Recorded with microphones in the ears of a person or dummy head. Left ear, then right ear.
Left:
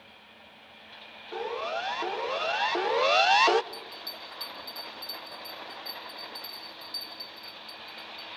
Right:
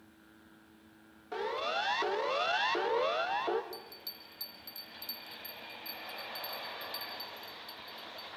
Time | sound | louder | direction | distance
1.3 | a siren | left 2 dB | 25° right (ahead or behind) | 2 m
3.7 | a bell | left 6 dB | 25° right (ahead or behind) | 2 m